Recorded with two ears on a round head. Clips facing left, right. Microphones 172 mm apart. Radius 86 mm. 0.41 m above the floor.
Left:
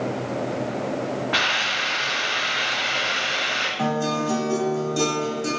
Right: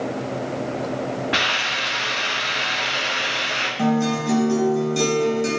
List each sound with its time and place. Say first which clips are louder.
1.3 s a hiss: right 1 dB; 30° right (ahead or behind), 1.8 m
3.8 s a guitar: right 4 dB; 25° right (ahead or behind), 1.2 m